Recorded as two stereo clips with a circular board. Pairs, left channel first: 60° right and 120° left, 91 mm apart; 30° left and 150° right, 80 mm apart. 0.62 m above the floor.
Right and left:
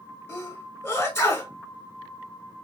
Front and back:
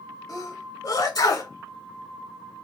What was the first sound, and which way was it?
A sneeze, straight ahead.